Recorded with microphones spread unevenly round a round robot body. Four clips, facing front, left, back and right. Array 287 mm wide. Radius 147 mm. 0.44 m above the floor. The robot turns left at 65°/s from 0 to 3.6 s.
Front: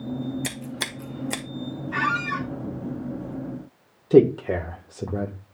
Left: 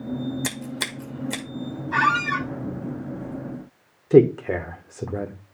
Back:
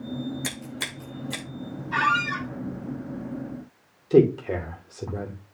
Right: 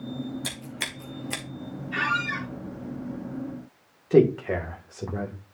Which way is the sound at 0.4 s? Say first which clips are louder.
Left 6 dB, front 2 dB; 75° left.